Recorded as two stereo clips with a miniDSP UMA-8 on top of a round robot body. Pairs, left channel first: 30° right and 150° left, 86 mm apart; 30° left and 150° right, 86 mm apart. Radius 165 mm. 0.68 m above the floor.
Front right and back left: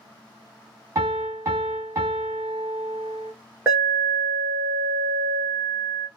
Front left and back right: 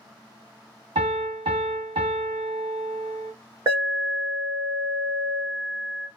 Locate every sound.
0.9 s a piano: 150° right, 1.9 m
3.7 s an alarm: 155° right, 2 m